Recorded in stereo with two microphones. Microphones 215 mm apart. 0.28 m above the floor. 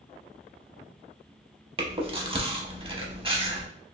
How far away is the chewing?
About 0.5 m.